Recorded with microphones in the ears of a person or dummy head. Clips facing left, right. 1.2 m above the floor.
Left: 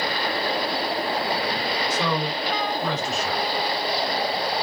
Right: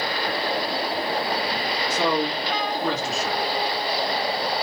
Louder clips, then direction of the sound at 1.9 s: Right 5 dB; 50° right (ahead or behind).